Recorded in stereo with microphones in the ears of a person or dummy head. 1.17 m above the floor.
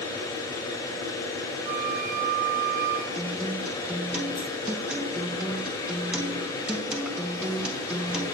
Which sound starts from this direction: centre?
A guitar, at 3.1 s.